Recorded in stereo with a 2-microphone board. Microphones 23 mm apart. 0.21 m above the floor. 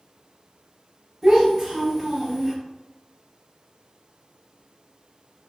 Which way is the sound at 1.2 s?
15° right (ahead or behind).